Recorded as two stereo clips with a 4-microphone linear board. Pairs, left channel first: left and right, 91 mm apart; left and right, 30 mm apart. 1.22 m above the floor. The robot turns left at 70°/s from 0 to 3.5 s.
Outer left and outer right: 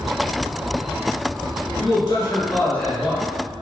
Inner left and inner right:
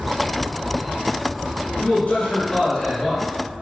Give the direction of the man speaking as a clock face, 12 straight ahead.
9 o'clock.